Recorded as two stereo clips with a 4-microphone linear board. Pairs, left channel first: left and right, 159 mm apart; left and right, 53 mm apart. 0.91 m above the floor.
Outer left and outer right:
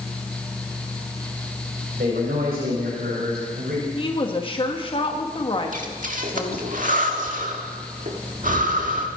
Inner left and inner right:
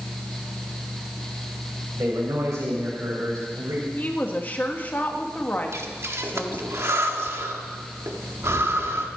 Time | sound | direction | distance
2.0 | a man speaking | 70° right (ahead or behind) | 4.5 m
4.0 | a woman speaking | 35° left (ahead or behind) | 1.5 m
5.7 | breathing | 55° right (ahead or behind) | 1.7 m